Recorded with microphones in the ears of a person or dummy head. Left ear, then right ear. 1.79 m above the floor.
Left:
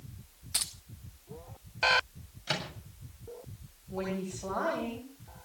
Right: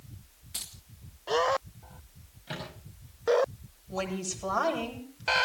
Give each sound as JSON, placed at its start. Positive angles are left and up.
{"t": 0.5, "sound": "keys jangling", "side_deg": 10, "distance_m": 0.8}
{"t": 2.5, "sound": "a microwave", "side_deg": 45, "distance_m": 7.0}
{"t": 3.9, "sound": "a woman speaking", "side_deg": -65, "distance_m": 9.5}